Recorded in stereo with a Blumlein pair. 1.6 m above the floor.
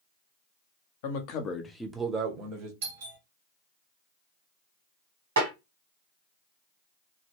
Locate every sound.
1.0 s a man speaking: 50° left, 0.9 m; by 2.7 s 40° right, 1.2 m
2.8 s a doorbell: 55° right, 1.4 m
5.4 s a snare drum: 65° right, 1.8 m